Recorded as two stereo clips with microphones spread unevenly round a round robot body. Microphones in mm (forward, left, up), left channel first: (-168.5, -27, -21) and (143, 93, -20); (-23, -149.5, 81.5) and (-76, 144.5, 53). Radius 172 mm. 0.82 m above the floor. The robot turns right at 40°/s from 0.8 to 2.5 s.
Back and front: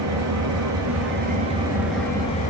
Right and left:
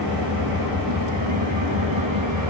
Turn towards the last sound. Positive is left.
turn(degrees=135)